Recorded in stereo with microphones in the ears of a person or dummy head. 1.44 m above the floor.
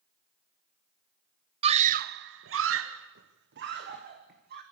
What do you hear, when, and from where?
1.6 s a scream: 30° right (ahead or behind), 0.7 m; by 4.6 s 50° right (ahead or behind), 1.7 m